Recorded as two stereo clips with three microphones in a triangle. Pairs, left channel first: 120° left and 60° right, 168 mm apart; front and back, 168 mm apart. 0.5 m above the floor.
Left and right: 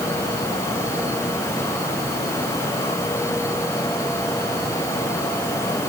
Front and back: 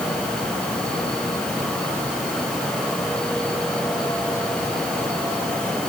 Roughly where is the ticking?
I don't hear ticking.